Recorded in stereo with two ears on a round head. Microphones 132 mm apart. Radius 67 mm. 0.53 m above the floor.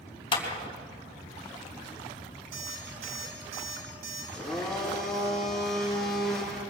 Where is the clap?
35° left (ahead or behind), 3 m.